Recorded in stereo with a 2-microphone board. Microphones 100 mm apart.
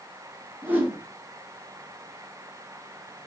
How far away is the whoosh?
About 1.0 m.